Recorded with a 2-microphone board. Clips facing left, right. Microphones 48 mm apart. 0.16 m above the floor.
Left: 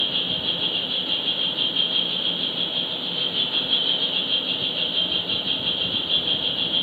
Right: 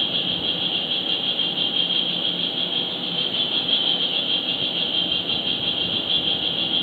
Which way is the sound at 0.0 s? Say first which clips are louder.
Right 1 dB; 70° right (ahead or behind).